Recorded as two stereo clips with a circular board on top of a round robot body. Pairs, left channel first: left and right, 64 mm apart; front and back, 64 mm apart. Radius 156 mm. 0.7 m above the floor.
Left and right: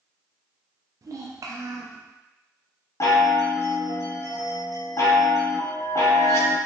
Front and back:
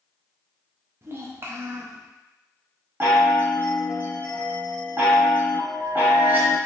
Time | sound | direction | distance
1.0 | a child speaking | 130° right | 0.5 m
3.0 | a chime | 120° left | 1.1 m